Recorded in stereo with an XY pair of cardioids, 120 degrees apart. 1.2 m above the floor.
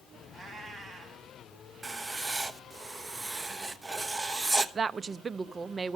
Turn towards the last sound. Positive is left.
turn(degrees=-30)